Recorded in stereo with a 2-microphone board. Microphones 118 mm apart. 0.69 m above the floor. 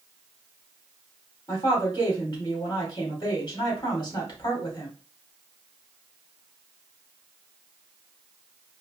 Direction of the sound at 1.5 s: 35° left (ahead or behind).